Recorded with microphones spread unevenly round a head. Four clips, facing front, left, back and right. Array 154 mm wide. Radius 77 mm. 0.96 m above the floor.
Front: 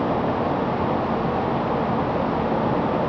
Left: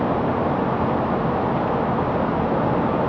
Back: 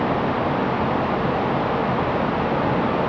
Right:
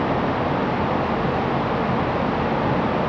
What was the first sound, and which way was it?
Only background noise.